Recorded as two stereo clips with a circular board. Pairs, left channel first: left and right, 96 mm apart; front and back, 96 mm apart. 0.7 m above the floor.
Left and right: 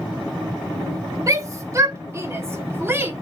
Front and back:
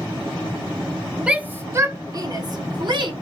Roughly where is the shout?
Right.